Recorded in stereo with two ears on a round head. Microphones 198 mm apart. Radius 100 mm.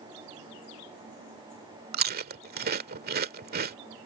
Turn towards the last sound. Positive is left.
turn(degrees=-45)  # may be behind; listen again after turning